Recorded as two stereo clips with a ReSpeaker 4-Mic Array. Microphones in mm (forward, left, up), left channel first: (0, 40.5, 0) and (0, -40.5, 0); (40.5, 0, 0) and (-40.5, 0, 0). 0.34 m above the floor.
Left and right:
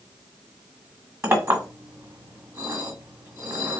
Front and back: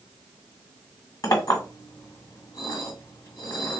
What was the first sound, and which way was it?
A clink, 35° right.